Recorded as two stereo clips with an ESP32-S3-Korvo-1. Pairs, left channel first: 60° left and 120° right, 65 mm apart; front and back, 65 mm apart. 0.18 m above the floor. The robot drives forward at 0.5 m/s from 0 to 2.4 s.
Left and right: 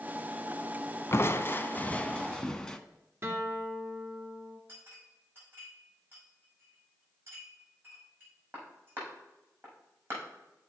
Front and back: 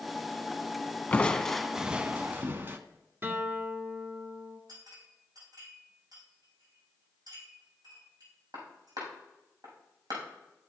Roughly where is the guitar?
Behind right.